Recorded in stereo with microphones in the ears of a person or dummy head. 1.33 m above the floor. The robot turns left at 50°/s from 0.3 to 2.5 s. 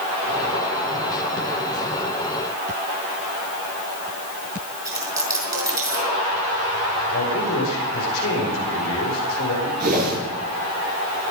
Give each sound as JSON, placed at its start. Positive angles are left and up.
{"t": 4.8, "sound": "a dropped coin", "side_deg": -20, "distance_m": 6.5}
{"t": 7.1, "sound": "a man speaking", "side_deg": 65, "distance_m": 5.0}
{"t": 9.8, "sound": "a whoosh", "side_deg": -45, "distance_m": 5.5}